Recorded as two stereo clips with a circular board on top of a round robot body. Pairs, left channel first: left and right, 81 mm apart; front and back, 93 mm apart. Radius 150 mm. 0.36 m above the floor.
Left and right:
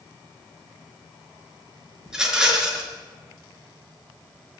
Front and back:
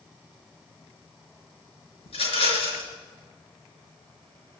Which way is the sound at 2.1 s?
10° right.